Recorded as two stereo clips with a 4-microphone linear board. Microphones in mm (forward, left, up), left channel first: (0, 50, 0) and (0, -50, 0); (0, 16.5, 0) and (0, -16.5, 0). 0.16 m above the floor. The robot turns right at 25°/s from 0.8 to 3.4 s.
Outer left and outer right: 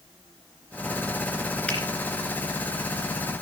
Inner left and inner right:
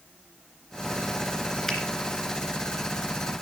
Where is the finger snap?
15° left (ahead or behind), 2.5 m; by 1.8 s 10° left (ahead or behind), 2.5 m.